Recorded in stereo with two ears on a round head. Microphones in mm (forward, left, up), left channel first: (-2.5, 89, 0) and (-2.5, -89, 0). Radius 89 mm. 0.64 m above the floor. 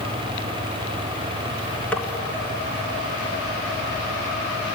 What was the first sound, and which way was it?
Tapping, 5° left (ahead or behind).